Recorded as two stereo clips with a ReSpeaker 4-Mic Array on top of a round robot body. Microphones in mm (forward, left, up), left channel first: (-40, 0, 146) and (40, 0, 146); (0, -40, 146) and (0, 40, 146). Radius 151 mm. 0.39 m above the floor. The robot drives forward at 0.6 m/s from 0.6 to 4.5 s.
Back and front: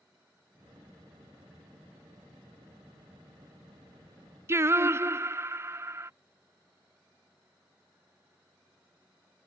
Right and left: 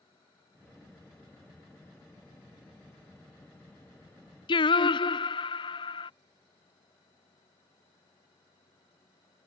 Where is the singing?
60° right.